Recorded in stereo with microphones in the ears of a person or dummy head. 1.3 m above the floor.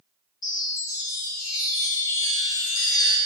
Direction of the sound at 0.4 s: 25° left (ahead or behind).